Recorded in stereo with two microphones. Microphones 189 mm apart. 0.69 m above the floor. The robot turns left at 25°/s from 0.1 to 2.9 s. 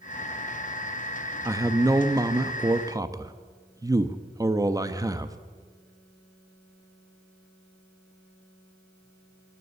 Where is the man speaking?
15° right (ahead or behind), 0.5 m; by 5.4 s 20° right (ahead or behind), 0.5 m.